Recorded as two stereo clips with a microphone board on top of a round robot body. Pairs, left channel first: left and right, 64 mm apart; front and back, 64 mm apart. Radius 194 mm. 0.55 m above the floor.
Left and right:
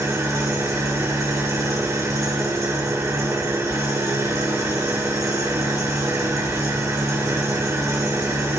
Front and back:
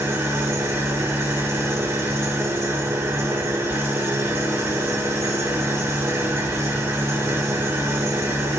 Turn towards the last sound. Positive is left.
turn(degrees=-130)